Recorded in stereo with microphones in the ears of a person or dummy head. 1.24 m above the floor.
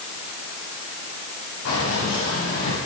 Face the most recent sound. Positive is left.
turn(degrees=75)  # may be behind; listen again after turning